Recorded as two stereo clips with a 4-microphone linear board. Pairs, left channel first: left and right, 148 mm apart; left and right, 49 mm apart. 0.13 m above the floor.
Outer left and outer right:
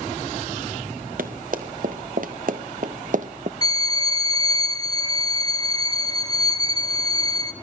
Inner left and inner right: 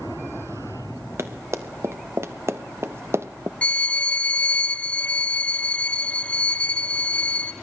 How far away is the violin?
About 1.2 m.